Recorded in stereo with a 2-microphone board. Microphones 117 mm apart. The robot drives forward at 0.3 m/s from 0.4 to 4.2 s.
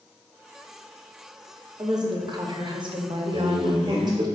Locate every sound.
1.8 s a woman speaking: 35° right (ahead or behind), 0.7 m
3.3 s a man speaking: 45° right (ahead or behind), 1.6 m; by 4.3 s 40° right (ahead or behind), 1.8 m